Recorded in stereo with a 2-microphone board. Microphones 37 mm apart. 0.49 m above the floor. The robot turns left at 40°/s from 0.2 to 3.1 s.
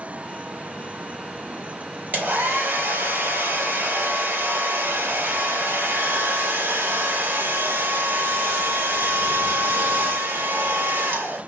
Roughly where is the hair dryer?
Ahead right.